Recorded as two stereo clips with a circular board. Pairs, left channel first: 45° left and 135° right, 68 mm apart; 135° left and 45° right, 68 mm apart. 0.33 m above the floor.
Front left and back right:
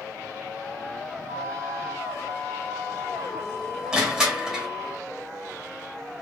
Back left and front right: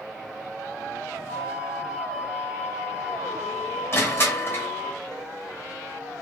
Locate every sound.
1.3 s a flute: 120° right, 1.6 m
3.9 s crushing: 150° left, 1.0 m